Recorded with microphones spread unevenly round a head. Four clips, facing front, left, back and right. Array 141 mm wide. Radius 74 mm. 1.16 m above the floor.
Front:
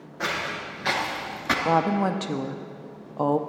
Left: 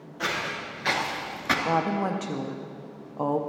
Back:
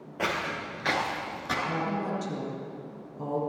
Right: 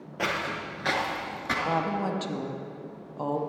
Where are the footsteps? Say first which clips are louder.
Right 1 dB, front 1 dB; 130° right, 1.9 m; by 1.6 s 35° left, 1.2 m.